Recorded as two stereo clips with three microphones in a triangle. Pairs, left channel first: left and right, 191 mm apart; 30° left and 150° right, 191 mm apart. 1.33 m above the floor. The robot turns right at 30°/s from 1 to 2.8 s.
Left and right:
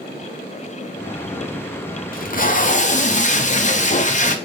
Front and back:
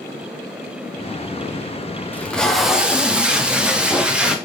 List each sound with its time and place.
2.1 s tape being pulled: 105° left, 0.6 m; by 4.3 s 125° left, 0.6 m